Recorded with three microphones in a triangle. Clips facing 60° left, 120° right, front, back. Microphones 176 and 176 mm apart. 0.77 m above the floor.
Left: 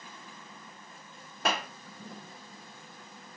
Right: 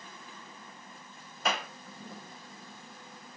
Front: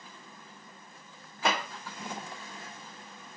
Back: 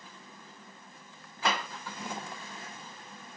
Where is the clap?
65° left, 1.6 m.